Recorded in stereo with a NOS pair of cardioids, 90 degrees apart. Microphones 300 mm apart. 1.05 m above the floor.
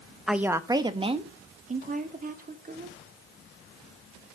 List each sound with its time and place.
0.3 s a woman speaking: straight ahead, 1.0 m; by 3.0 s 30° right, 3 m